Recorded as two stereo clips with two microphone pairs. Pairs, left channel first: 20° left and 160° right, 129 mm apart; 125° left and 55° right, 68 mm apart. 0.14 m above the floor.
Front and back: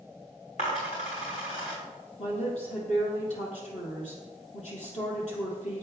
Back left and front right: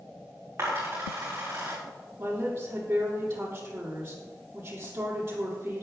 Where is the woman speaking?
Straight ahead, 5 m.